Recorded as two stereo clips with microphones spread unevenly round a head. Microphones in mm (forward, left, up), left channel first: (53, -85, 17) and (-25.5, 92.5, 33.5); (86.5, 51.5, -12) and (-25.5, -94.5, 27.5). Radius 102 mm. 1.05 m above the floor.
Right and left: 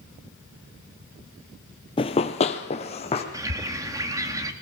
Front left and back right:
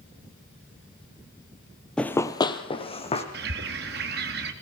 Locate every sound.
2.0 s running footsteps: 60° right, 1.1 m; by 3.2 s 5° right, 2.5 m
3.3 s a bird: 170° right, 2.0 m